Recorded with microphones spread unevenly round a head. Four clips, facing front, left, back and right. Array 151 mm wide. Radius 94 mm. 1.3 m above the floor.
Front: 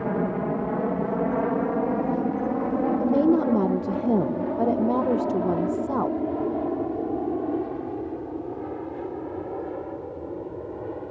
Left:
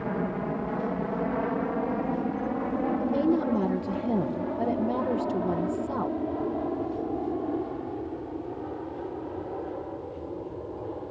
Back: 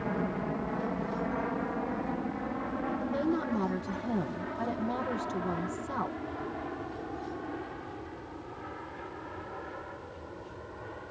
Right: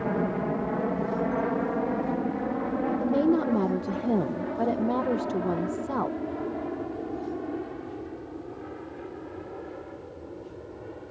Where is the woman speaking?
15° right.